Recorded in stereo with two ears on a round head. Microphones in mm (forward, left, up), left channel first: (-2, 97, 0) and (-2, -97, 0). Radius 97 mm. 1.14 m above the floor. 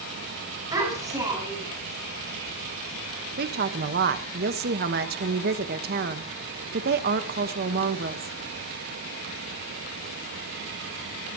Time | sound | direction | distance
0.7 | a child speaking | 15° right (ahead or behind) | 8 m
3.4 | a woman speaking | 45° right (ahead or behind) | 1.3 m